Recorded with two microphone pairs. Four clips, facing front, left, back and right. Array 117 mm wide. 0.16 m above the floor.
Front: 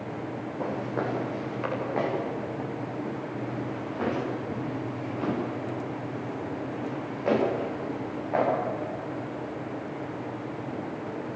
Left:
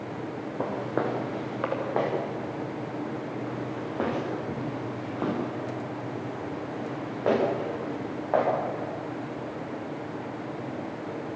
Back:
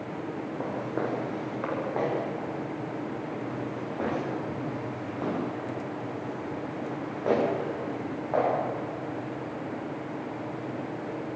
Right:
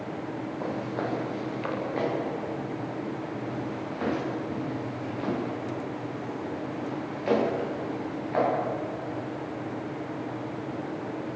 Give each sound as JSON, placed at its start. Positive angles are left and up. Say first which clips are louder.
{"t": 0.6, "sound": "footsteps", "louder": "left 4 dB, front 2 dB", "azimuth_deg": 100, "distance_m": 8.0}